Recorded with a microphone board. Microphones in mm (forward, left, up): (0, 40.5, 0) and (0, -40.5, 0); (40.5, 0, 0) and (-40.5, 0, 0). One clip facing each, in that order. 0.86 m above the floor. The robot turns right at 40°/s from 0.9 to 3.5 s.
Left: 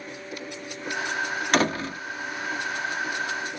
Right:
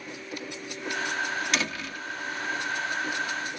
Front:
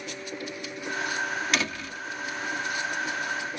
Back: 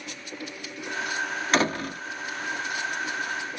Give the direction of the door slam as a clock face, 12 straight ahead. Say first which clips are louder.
Left 8 dB, back 6 dB; 8 o'clock.